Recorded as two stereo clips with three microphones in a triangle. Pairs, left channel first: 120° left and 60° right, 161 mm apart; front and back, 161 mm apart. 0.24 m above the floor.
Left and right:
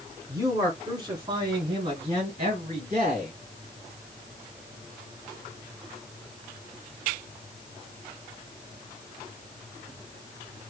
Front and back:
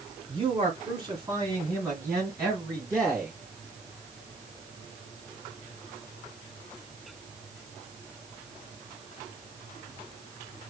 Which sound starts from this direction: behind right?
A man speaking, at 0.3 s.